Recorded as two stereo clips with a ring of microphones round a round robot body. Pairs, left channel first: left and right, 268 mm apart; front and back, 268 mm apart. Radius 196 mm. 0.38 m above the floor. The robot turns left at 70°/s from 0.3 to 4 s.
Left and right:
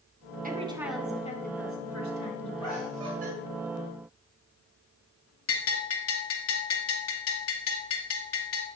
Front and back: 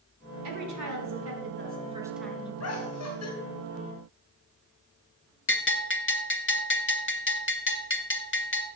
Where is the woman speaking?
145° right, 3.5 m; by 2.5 s 70° left, 3.5 m.